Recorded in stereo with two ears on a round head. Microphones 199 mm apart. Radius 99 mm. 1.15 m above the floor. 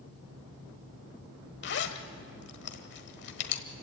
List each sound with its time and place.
1.6 s a zipper: 55° left (ahead or behind), 1.4 m